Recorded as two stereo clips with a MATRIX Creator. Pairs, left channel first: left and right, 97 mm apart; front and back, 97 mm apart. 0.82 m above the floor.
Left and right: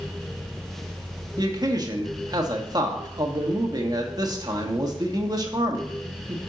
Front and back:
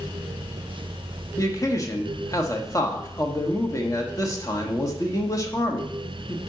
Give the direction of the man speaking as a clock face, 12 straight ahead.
2 o'clock.